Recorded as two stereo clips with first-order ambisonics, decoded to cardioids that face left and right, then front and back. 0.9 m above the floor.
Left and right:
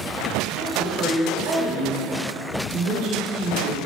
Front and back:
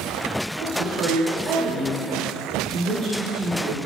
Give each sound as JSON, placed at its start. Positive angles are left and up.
{"t": 0.6, "sound": "a woman speaking", "azimuth_deg": -125, "distance_m": 3.5}